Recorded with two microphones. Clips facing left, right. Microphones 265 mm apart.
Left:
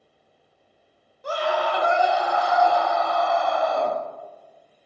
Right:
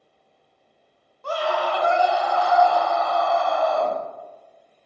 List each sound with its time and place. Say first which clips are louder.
1.2 s a scream: even; 20° left (ahead or behind), 0.9 m